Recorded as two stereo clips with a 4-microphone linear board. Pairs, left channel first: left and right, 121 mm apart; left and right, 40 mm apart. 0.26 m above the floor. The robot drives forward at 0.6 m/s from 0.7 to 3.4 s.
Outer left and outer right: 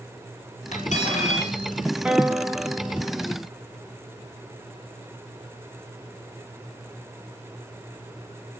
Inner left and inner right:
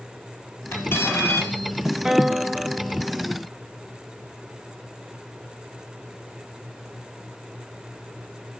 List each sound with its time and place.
0.7 s cutlery clinking: 75° left (ahead or behind), 4 m; by 1.6 s 80° left, 4 m
2.0 s a guitar: 10° right (ahead or behind), 0.9 m; by 3.3 s 5° right (ahead or behind), 1.0 m